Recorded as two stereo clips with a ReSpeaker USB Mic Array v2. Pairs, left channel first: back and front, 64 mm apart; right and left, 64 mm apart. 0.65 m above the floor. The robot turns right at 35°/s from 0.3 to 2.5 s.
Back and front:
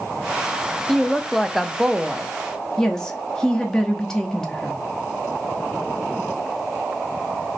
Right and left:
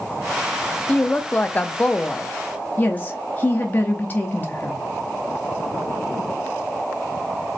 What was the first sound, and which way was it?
A woman speaking, 110° right.